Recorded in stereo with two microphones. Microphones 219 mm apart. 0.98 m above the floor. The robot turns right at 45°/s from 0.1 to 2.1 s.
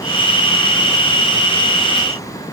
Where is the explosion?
I don't hear an explosion.